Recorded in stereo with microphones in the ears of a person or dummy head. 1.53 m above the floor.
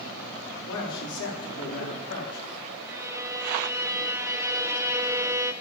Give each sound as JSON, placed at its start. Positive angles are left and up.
{"t": 0.7, "sound": "a man speaking", "side_deg": 70, "distance_m": 5.5}
{"t": 2.8, "sound": "a violin", "side_deg": -15, "distance_m": 0.9}